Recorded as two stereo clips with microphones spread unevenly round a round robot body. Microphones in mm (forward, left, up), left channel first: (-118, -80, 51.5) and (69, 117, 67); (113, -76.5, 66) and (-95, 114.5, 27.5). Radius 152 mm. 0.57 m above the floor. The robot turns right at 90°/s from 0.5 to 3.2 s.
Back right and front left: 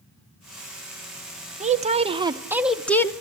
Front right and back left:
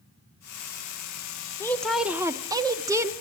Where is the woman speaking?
40° left, 0.7 m; by 3.1 s straight behind, 0.7 m.